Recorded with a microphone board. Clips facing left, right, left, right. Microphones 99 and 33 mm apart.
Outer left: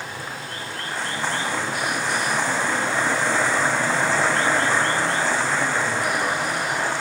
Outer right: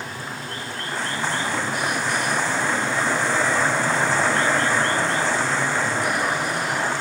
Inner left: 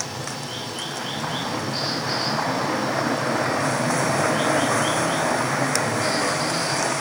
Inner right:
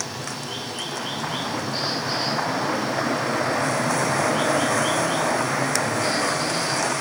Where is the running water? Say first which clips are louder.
Even, even; 5° left (ahead or behind), 4.5 m.